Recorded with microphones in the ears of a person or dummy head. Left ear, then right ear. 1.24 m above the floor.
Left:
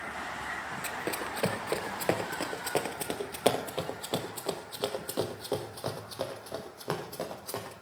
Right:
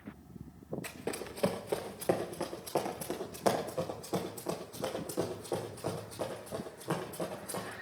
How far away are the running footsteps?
About 1.4 m.